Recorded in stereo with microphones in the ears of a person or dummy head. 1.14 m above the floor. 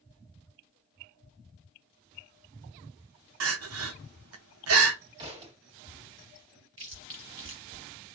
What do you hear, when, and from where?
3.4 s crying: 80° right, 0.7 m
5.2 s a thud: 30° right (ahead or behind), 2.0 m
6.8 s chewing: 15° right (ahead or behind), 1.3 m